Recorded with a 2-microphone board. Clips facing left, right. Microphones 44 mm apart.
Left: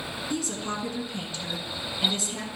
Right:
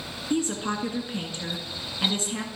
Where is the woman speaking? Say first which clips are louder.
Right 6 dB; 30° right (ahead or behind), 1.8 m.